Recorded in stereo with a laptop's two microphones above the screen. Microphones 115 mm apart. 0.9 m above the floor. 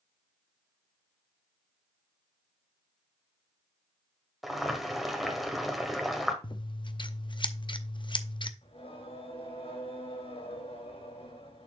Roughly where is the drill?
No drill in this recording.